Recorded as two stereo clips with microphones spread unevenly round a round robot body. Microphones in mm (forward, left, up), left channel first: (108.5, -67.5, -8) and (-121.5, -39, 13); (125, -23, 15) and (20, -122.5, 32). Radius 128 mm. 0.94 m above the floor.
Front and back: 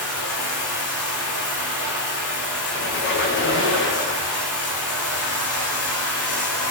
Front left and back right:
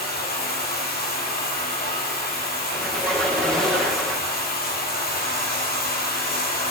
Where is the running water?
35° left, 5 m.